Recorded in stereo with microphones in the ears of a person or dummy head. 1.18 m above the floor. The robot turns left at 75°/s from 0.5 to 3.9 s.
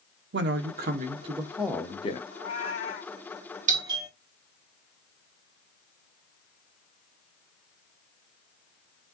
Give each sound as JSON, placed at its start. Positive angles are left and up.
{"t": 0.3, "sound": "a man speaking", "azimuth_deg": -100, "distance_m": 0.8}
{"t": 2.3, "sound": "a cat meowing", "azimuth_deg": 100, "distance_m": 3.5}
{"t": 3.7, "sound": "a doorbell", "side_deg": -35, "distance_m": 1.2}